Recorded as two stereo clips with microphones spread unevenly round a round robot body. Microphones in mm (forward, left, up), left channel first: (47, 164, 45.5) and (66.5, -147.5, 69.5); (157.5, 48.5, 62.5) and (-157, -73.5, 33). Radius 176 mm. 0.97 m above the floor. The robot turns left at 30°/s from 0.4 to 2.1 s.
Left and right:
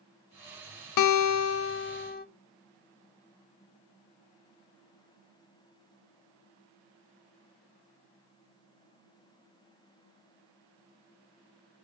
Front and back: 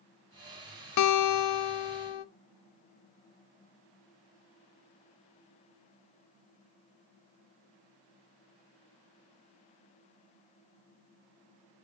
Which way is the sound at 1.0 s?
65° left.